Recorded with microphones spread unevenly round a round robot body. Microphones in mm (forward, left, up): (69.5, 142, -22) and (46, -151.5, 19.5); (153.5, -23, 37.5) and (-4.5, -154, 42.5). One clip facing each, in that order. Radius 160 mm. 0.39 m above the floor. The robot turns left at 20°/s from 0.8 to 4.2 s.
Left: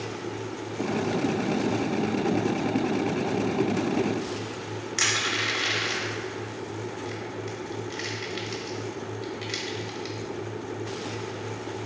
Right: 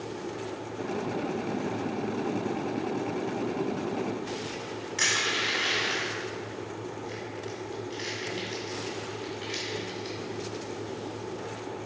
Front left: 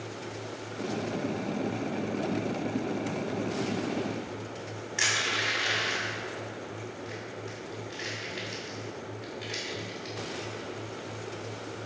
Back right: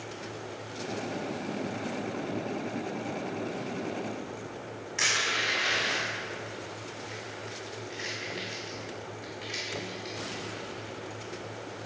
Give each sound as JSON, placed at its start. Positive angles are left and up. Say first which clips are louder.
{"t": 5.0, "sound": "crushing", "louder": "left 2 dB, front left 1 dB", "azimuth_deg": 120, "distance_m": 1.4}